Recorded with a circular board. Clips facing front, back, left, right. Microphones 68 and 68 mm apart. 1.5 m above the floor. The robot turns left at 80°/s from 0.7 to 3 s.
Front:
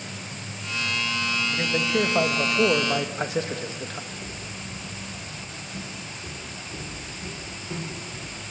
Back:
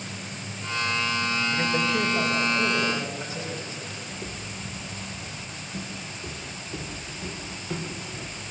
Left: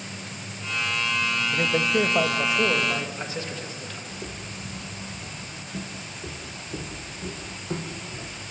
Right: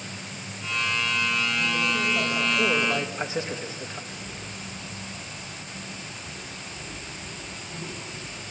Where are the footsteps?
120° left, 3.5 m; by 8.4 s 110° left, 6 m.